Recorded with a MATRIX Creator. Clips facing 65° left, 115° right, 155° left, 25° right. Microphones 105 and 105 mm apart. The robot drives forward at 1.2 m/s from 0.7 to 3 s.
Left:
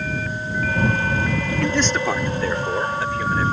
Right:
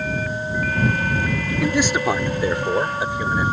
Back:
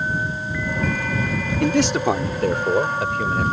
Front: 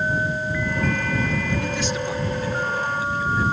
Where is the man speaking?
165° left; by 3.5 s 175° left.